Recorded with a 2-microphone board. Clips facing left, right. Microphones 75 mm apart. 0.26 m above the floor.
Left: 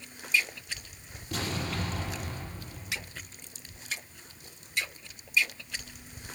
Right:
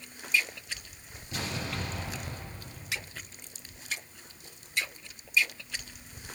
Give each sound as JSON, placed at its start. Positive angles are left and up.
{"t": 1.3, "sound": "an explosion", "side_deg": 75, "distance_m": 6.0}